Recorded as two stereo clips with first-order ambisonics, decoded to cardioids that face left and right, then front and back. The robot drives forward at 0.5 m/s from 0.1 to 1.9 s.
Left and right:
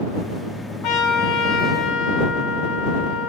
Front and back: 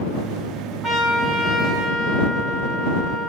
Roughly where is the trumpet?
Left.